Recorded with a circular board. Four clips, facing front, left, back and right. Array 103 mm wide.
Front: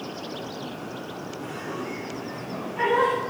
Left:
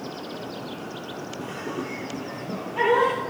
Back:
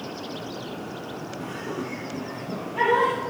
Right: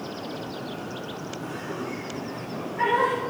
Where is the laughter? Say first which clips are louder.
Left 2 dB, back 1 dB; 110° left, 4.5 m.